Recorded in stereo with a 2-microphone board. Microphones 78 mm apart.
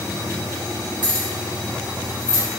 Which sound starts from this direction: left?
Keys jangling, at 1.0 s.